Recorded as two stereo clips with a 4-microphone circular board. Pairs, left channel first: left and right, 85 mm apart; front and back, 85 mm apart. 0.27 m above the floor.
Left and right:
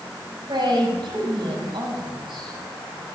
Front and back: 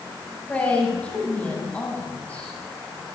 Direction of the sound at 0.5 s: 75° right.